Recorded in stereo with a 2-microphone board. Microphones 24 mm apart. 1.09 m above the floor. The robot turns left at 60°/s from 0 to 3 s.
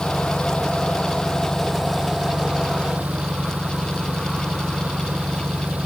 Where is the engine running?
110° left; by 5.9 s 70° right.